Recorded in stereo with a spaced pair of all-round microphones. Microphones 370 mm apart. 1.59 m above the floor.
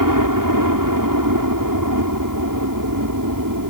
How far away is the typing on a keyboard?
No typing on a keyboard in this recording.